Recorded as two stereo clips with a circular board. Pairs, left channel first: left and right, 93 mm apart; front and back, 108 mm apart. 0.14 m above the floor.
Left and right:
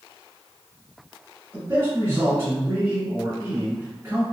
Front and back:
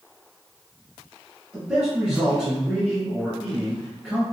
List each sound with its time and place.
1.5 s a man speaking: 105° right, 1.6 m